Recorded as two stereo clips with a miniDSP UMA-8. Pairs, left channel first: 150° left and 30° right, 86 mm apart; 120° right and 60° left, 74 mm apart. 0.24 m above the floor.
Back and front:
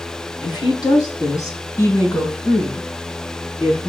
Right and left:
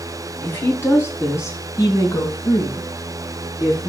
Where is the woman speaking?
175° left, 2.5 m; by 3.9 s 135° right, 3.5 m.